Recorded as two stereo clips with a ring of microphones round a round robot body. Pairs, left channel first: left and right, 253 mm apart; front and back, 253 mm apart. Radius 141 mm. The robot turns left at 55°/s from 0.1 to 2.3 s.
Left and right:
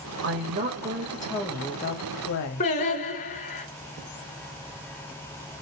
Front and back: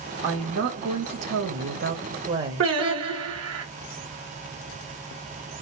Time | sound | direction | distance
0.2 | a woman speaking | 110° right | 1.3 m
2.6 | singing | 155° left | 1.5 m